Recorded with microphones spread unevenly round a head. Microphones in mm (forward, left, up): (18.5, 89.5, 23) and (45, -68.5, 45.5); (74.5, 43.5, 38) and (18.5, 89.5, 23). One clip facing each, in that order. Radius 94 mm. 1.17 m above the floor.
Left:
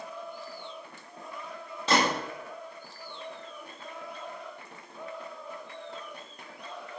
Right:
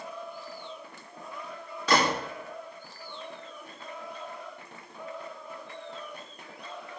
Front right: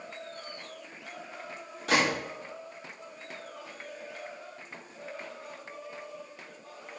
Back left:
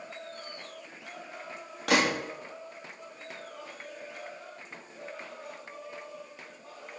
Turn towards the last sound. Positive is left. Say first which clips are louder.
# right 1 dB, back left 1 dB
turn(degrees=165)